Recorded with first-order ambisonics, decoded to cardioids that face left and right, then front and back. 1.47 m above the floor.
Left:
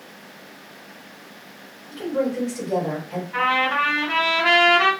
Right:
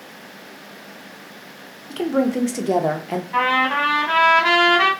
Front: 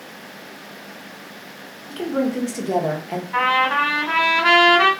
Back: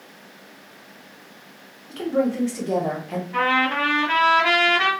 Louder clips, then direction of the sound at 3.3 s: Right 2 dB, front 3 dB; 45° right.